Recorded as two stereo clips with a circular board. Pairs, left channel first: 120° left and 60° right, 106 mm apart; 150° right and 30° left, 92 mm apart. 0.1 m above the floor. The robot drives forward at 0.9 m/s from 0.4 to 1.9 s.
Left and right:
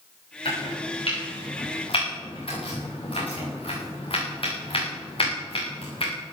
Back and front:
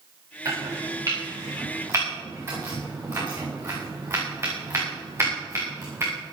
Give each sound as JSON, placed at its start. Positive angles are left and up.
{"t": 0.5, "sound": "chopping", "azimuth_deg": 80, "distance_m": 8.5}